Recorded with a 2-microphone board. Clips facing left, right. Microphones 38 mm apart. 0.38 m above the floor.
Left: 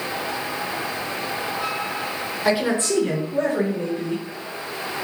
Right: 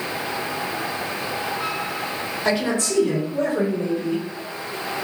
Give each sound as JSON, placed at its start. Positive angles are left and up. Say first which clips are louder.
{"t": 2.5, "sound": "a man speaking", "louder": "left 2 dB", "side_deg": 10, "distance_m": 0.8}